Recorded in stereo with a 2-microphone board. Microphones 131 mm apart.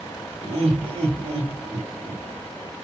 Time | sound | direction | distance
0.4 | laughter | 40° right (ahead or behind) | 2.5 m